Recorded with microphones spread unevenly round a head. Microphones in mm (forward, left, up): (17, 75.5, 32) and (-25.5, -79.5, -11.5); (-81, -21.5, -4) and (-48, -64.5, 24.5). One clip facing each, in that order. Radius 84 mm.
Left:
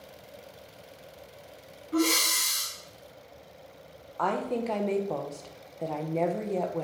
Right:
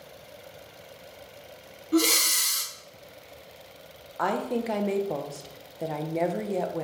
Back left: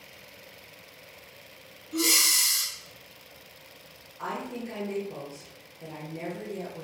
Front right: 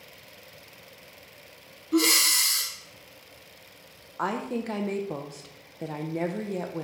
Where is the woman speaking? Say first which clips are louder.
Right 1 dB, front right 5 dB; 20° right, 0.8 m.